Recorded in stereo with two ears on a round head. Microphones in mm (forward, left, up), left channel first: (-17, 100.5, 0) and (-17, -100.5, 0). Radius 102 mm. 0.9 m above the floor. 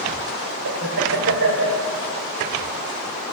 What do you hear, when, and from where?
0.7 s laughter: 70° right (ahead or behind), 3.5 m